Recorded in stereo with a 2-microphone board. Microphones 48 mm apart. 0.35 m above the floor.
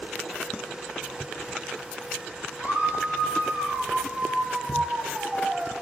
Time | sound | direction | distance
2.6 | a scream | 50° right (ahead or behind) | 6 m